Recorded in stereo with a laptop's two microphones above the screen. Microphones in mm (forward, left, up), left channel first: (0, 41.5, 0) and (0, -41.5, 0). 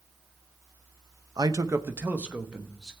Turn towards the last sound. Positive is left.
turn(degrees=-5)  # may be behind; listen again after turning